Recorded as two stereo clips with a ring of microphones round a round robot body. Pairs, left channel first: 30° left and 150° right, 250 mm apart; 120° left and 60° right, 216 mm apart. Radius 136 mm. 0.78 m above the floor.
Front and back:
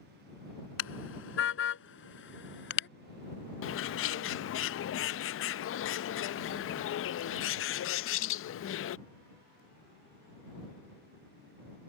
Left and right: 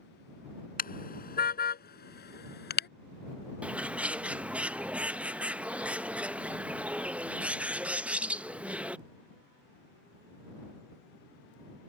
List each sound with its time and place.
0.8 s a car horn: 70° left; by 2.9 s 80° left
3.6 s a bird: 25° left